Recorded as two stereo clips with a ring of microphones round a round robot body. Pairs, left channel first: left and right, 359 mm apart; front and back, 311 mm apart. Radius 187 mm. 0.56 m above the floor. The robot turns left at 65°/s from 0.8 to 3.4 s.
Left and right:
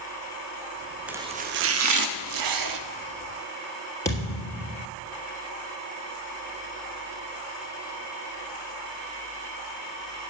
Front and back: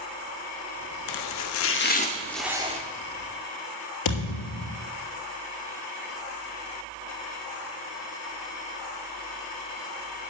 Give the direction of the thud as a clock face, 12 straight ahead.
12 o'clock.